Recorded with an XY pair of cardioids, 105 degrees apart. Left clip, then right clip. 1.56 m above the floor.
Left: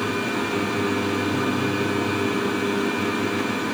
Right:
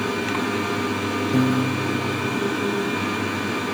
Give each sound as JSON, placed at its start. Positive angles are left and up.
{"t": 1.3, "sound": "a piano", "azimuth_deg": -55, "distance_m": 1.8}